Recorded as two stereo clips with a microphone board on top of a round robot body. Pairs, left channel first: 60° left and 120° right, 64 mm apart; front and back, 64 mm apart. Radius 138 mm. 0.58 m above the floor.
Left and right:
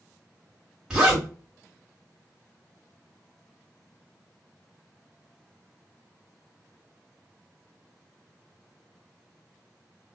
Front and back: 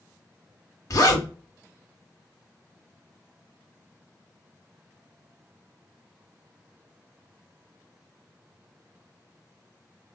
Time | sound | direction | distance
0.9 | a zipper | 40° right | 1.0 m